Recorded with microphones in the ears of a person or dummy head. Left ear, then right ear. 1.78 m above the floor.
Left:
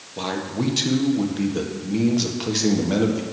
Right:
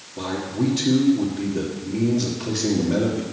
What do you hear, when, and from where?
0.2 s a man speaking: 50° left (ahead or behind), 1.8 m